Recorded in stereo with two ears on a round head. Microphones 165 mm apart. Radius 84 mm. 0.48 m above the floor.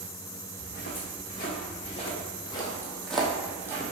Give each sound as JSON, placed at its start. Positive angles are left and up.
{"t": 0.6, "sound": "footsteps", "side_deg": 60, "distance_m": 1.9}